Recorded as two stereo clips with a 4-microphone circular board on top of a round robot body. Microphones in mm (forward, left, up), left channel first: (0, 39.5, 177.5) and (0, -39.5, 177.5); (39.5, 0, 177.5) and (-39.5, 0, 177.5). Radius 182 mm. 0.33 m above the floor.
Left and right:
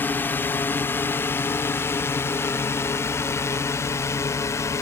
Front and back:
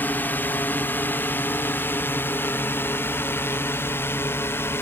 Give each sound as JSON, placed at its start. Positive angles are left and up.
{"t": 0.0, "sound": "a drone", "azimuth_deg": 50}